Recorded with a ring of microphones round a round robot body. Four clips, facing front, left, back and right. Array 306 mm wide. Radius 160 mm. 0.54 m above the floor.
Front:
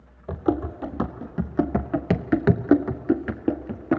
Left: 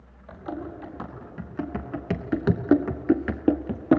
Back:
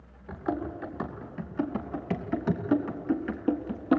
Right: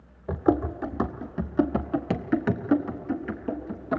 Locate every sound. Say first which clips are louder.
0.3 s running footsteps: right 11 dB, front 7 dB; 45° right, 1.5 m; by 4.0 s 80° left, 1.0 m